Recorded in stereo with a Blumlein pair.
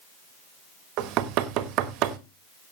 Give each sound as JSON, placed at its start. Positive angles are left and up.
{"t": 1.0, "sound": "knocking", "azimuth_deg": -40, "distance_m": 1.2}